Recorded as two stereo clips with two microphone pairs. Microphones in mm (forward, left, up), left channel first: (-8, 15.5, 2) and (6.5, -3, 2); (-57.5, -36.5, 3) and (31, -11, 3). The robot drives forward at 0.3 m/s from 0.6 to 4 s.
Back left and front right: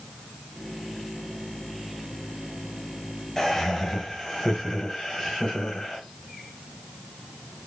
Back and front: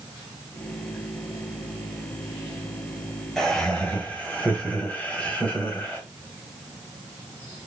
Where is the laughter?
125° left, 1.0 m; by 6.0 s 145° left, 1.0 m.